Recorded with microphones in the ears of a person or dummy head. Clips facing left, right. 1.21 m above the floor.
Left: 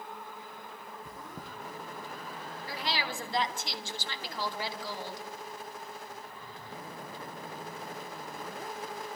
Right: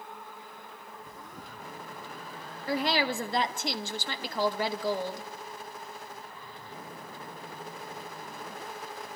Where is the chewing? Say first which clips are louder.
Left 2 dB; 75° left (ahead or behind), 4.5 m.